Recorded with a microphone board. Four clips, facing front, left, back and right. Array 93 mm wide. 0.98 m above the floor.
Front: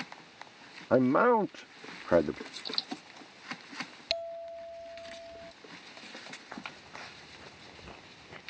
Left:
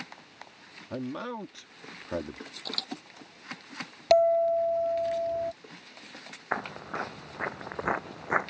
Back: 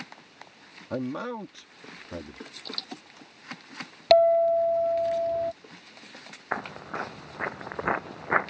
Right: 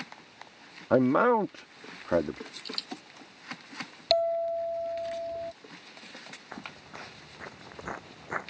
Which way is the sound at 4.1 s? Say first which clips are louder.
Left 5 dB, back 21 dB; 160° left.